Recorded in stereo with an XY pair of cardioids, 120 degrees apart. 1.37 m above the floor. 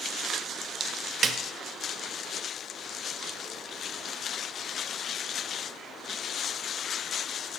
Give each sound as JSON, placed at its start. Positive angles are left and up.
{"t": 1.2, "sound": "a snare drum", "azimuth_deg": -45, "distance_m": 0.5}